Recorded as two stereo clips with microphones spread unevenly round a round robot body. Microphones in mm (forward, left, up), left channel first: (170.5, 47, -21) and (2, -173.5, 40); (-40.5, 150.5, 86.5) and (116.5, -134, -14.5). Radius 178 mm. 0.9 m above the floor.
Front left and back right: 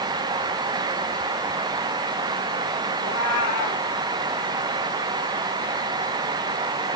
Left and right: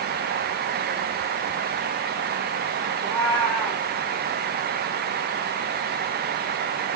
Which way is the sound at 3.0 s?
35° left.